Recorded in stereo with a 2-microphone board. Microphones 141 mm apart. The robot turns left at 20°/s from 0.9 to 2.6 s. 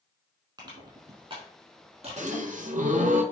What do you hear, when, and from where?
0.6 s crushing: 30° right (ahead or behind), 4 m; by 2.9 s 65° right (ahead or behind), 4 m
2.2 s a gasp: 60° right (ahead or behind), 1.2 m; by 3.2 s 70° right (ahead or behind), 1.2 m